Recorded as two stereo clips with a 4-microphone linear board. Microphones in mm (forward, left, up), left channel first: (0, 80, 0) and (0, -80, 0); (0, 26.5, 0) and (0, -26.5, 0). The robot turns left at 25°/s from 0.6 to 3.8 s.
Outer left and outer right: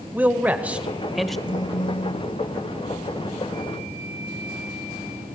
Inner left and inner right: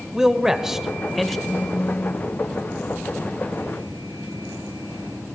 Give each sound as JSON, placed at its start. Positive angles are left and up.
{"t": 0.1, "sound": "a man speaking", "side_deg": -10, "distance_m": 1.1}
{"t": 1.5, "sound": "a phone buzzing", "side_deg": 50, "distance_m": 1.0}